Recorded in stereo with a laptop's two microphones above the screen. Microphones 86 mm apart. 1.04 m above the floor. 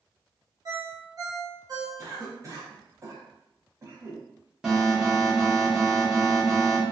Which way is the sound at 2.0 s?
35° right (ahead or behind).